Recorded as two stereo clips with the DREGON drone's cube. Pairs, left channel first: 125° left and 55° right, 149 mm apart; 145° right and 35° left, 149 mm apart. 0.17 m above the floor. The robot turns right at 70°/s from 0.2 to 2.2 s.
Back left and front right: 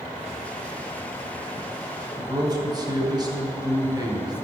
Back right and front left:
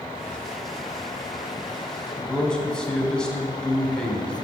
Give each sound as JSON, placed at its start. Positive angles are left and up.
{"t": 2.2, "sound": "a man speaking", "azimuth_deg": -70, "distance_m": 1.2}